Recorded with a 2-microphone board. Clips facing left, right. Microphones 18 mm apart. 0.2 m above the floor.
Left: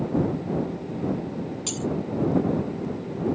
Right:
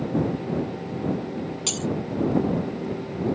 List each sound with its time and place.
1.7 s breaking glass: 25° right (ahead or behind)